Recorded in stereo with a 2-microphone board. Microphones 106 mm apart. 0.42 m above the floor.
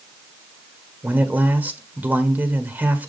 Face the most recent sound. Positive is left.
turn(degrees=-15)  # may be behind; listen again after turning